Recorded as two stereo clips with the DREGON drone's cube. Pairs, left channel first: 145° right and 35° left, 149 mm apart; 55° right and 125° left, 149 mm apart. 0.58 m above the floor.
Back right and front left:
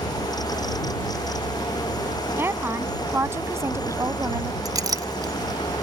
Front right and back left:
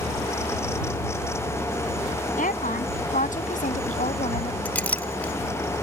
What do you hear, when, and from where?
2.4 s a woman speaking: 40° right; by 4.5 s 30° right
4.7 s a clink: 10° left